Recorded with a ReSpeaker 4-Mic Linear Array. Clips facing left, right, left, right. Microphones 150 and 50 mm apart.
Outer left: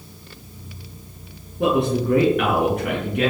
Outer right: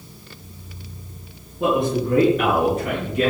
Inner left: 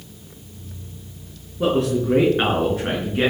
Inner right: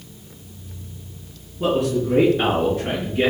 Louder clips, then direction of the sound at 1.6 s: Outer left 1 dB, inner left 1 dB; 70° left (ahead or behind).